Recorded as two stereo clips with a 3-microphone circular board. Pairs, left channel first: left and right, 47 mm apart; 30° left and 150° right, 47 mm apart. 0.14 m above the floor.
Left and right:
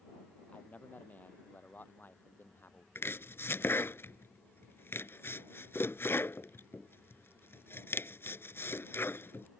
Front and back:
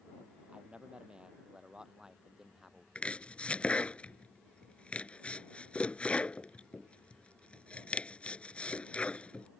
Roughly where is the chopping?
Left.